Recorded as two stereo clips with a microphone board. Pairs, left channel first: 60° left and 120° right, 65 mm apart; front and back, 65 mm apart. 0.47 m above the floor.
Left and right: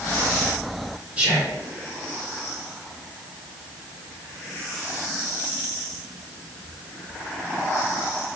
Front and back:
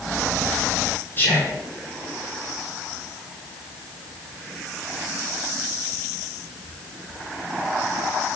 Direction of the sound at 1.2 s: 50° right.